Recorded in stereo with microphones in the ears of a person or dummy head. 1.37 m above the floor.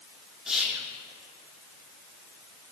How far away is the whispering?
About 0.5 m.